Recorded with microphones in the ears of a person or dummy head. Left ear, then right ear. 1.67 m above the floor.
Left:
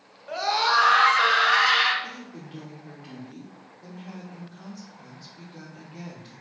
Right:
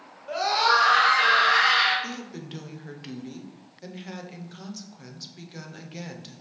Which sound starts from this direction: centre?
A scream, at 0.3 s.